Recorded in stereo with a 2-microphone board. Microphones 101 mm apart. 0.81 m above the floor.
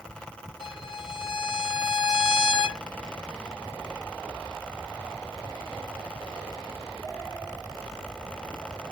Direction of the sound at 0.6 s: 50° left (ahead or behind).